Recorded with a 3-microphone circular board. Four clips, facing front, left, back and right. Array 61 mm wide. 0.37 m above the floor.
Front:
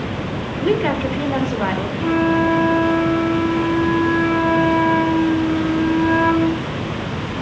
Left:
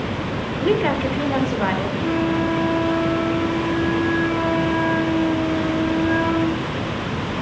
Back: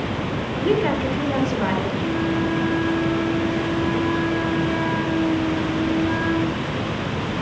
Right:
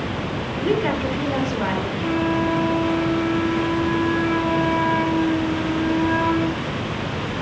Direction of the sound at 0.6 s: 40° left.